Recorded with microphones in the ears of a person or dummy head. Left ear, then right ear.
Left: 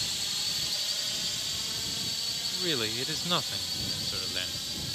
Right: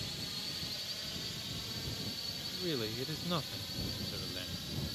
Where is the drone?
45° left (ahead or behind); by 5.0 s 35° left (ahead or behind).